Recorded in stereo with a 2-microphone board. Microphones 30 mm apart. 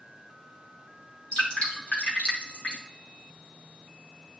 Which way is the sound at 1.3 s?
35° left (ahead or behind).